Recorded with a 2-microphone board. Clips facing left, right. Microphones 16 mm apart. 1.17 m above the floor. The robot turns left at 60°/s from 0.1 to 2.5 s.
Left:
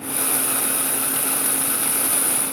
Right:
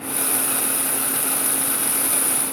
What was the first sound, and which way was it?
Only background noise.